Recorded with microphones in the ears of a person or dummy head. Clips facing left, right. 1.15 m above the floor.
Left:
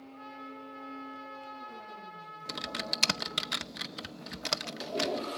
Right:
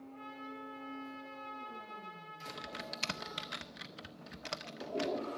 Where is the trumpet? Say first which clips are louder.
Left 2 dB; 45° right (ahead or behind), 4 m.